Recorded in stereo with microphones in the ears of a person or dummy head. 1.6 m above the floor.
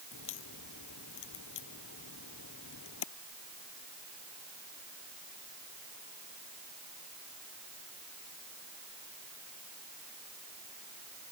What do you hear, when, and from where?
0.1 s a crack: 65° left (ahead or behind)